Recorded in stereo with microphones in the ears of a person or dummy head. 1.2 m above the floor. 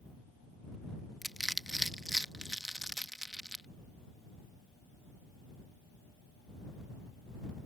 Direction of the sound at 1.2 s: Centre (ahead or behind).